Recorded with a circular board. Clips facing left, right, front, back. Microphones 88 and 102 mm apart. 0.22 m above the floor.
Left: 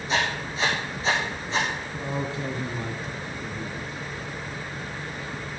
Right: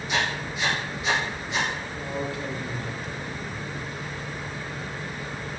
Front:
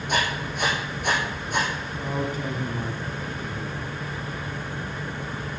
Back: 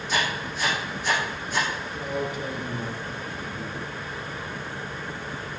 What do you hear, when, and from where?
0.1 s writing: 35° left, 4.5 m
1.9 s a man speaking: 35° left, 2.0 m